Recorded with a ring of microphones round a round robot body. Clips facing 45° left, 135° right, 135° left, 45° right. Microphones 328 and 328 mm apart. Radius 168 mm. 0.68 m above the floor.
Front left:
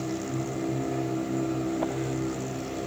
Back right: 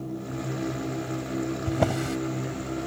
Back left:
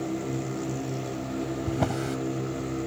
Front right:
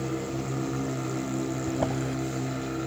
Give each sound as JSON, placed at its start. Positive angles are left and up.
{"t": 1.7, "sound": "a drawer", "azimuth_deg": -160}